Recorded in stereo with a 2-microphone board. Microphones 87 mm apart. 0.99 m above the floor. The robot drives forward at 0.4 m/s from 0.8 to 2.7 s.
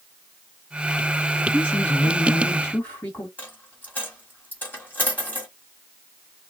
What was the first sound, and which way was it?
A man speaking, 25° left (ahead or behind).